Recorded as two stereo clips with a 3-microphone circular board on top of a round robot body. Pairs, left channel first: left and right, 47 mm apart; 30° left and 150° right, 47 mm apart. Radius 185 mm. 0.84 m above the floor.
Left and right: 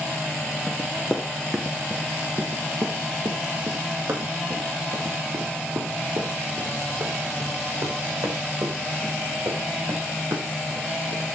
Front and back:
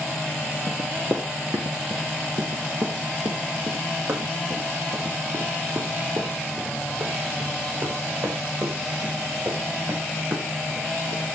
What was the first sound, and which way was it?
Running footsteps, 165° left.